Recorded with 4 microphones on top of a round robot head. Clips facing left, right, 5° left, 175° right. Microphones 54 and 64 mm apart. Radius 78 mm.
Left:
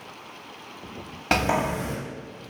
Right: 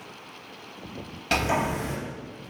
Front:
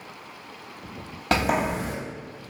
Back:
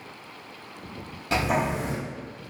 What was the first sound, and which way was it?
A sliding door, 35° left.